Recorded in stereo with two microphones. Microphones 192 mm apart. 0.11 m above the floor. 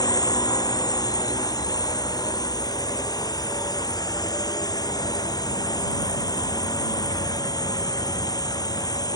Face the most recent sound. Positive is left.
turn(degrees=20)  # may be behind; listen again after turning